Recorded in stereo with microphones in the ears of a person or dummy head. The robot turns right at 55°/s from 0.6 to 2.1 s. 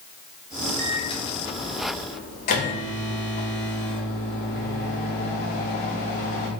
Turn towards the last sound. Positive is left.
turn(degrees=100)